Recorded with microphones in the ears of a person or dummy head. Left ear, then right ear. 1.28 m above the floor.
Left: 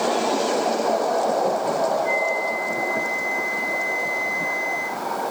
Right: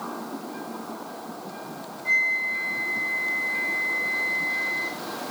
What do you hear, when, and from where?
2.0 s a flute: 10° right (ahead or behind), 1.5 m